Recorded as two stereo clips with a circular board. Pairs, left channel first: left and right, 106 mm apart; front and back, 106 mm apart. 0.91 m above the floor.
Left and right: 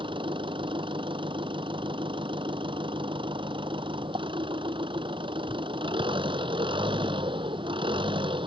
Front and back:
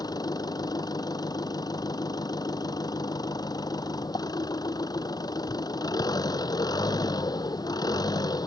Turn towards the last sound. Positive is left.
turn(degrees=-50)